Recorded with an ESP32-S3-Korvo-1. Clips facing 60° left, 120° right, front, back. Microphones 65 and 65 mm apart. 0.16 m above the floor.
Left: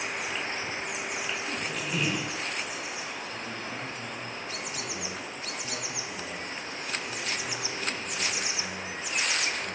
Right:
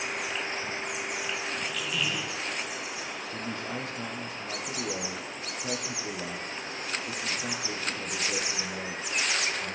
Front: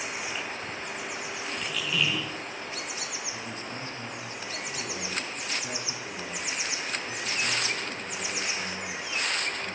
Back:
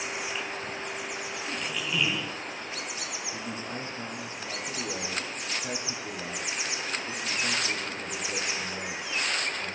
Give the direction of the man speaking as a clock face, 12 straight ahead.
4 o'clock.